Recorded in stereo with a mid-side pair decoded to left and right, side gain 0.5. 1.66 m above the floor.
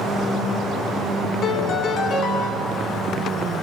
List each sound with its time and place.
1.4 s a piano: 55° left, 2.5 m